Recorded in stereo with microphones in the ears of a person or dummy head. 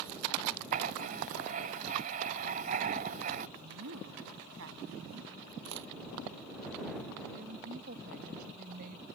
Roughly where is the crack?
Right.